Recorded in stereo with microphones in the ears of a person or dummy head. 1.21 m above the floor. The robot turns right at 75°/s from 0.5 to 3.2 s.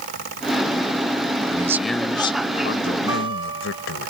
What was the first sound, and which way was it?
A man speaking, 25° right.